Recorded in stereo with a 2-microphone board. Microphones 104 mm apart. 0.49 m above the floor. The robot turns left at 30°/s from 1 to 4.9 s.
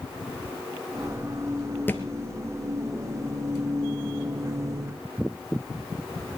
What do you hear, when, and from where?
1.9 s a thud: 20° left (ahead or behind), 1.5 m; by 2.0 s 25° left (ahead or behind), 1.5 m